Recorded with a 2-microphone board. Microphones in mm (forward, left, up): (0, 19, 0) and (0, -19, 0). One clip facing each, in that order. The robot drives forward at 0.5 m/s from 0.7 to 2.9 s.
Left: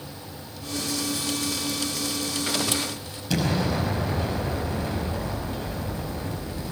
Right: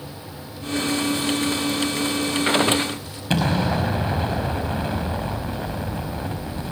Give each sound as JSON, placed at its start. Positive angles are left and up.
{"t": 3.3, "sound": "an explosion", "side_deg": -45, "distance_m": 5.0}